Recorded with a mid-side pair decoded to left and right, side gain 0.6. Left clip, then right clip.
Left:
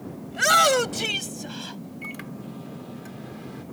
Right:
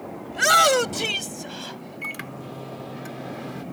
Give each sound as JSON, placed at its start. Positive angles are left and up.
{"t": 0.3, "sound": "a shout", "azimuth_deg": -10}
{"t": 2.0, "sound": "a microwave", "azimuth_deg": -30}